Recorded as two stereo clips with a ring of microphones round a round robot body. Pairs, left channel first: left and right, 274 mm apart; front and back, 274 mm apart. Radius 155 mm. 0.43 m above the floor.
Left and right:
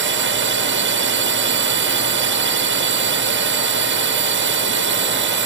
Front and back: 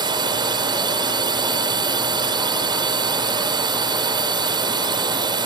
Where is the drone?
110° right.